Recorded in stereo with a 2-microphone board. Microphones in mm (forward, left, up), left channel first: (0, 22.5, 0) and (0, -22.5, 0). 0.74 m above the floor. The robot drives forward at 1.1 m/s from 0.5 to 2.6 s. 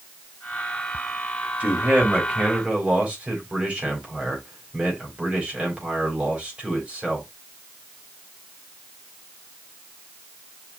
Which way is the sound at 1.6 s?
30° right (ahead or behind).